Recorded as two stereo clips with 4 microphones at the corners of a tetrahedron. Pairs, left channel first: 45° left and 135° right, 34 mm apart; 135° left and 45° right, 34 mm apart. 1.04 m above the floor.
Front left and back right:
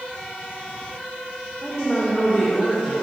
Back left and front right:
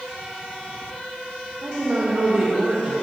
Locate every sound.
1.6 s a woman speaking: 40° right, 0.8 m